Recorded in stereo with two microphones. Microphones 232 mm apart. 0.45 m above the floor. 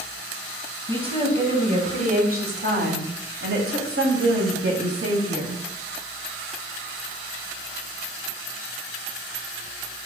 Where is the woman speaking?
25° right (ahead or behind), 2.5 m; by 5.6 s 75° right (ahead or behind), 2.5 m.